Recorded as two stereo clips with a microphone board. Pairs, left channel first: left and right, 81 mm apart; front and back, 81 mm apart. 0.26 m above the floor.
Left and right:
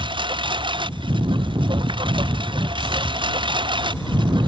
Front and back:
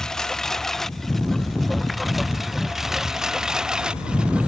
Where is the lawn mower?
80° right; by 4.5 s 100° right.